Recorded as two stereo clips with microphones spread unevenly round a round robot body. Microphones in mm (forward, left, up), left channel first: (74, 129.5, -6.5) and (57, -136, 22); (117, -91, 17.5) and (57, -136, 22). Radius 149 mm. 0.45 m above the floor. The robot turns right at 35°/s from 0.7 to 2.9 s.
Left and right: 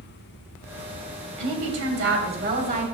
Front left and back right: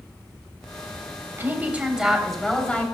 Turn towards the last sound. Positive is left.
turn(degrees=-30)